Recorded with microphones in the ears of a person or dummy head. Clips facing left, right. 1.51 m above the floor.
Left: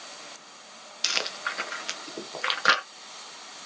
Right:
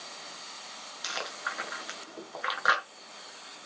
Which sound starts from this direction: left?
Chewing, at 1.0 s.